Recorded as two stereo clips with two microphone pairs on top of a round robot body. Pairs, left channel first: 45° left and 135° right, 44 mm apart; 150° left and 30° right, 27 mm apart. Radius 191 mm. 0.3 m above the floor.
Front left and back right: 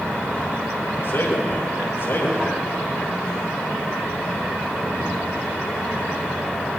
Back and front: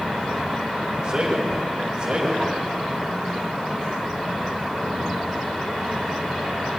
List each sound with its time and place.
1.0 s a man speaking: 25° left, 3.5 m